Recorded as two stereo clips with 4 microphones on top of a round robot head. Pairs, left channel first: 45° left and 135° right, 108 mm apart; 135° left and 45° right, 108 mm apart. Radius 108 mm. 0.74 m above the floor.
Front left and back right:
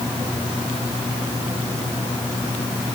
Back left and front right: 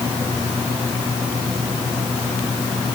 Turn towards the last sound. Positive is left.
No sound to turn to.